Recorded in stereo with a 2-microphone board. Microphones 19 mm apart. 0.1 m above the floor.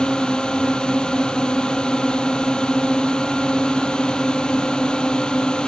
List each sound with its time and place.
0.0 s a drone: 60° left (ahead or behind)